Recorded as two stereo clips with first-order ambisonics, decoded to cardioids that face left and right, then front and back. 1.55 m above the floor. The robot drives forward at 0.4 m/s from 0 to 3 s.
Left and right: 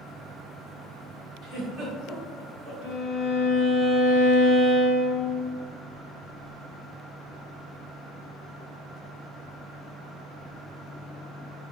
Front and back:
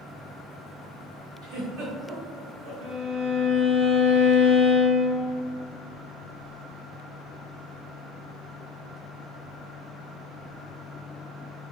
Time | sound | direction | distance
1.4 | a giggle | 145° right | 0.9 m
2.8 | a violin | 165° left | 0.9 m